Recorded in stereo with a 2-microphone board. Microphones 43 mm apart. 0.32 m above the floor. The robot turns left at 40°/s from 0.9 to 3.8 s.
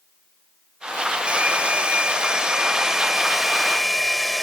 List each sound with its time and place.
1.3 s a hair dryer: 25° right (ahead or behind); by 4.4 s 5° left (ahead or behind)